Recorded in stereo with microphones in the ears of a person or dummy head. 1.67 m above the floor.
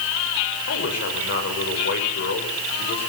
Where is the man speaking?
60° left (ahead or behind), 6 m.